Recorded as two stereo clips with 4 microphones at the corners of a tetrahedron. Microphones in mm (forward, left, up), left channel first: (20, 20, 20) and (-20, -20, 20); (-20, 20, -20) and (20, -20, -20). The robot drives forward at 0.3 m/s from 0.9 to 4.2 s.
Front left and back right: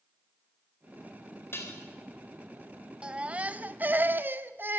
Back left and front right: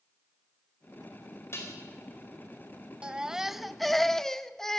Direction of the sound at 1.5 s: 90° left.